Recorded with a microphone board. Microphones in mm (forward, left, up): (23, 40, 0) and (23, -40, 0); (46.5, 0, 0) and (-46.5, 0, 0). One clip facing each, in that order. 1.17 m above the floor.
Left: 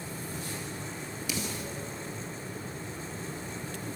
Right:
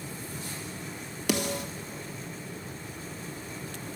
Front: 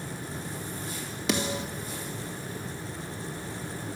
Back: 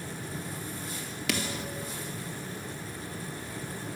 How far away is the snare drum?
About 1.6 m.